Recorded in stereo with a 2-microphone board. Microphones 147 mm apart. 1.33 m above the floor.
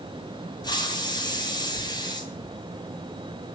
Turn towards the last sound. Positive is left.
turn(degrees=30)  # may be behind; listen again after turning